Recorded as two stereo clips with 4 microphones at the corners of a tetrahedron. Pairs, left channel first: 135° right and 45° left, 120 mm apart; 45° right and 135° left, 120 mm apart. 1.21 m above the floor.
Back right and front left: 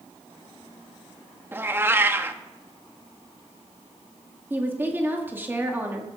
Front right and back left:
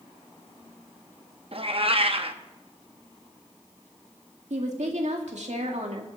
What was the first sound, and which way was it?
A cat meowing, 110° left.